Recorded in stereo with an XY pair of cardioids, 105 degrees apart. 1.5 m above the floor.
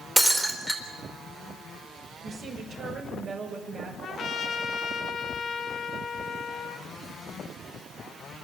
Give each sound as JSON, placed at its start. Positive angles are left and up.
{"t": 0.2, "sound": "breaking glass", "azimuth_deg": 0, "distance_m": 3.5}
{"t": 2.2, "sound": "a woman speaking", "azimuth_deg": -60, "distance_m": 6.5}
{"t": 4.0, "sound": "a trumpet", "azimuth_deg": 55, "distance_m": 1.7}